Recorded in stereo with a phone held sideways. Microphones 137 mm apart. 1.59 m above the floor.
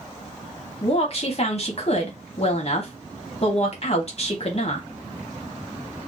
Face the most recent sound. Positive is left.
turn(degrees=50)  # may be behind; listen again after turning